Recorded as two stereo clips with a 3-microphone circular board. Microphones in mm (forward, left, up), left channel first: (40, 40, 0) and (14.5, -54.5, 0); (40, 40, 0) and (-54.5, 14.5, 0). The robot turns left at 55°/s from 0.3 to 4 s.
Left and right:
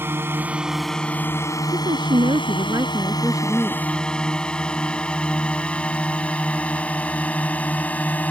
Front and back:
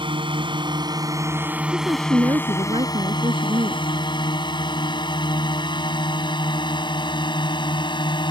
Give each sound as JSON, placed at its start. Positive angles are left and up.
{"t": 0.0, "sound": "a drone", "azimuth_deg": -170}
{"t": 1.7, "sound": "a woman speaking", "azimuth_deg": -90}